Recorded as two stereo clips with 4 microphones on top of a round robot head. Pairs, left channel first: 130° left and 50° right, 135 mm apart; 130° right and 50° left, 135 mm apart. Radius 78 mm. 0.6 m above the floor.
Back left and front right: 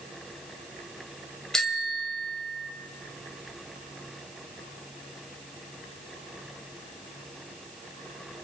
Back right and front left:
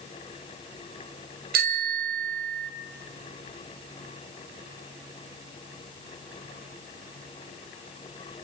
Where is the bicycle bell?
40° left, 2.5 m.